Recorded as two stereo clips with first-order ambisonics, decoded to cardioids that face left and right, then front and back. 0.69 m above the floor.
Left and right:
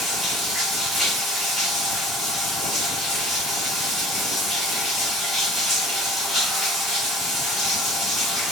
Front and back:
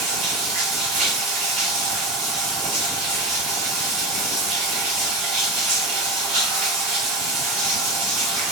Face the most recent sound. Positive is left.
turn(degrees=175)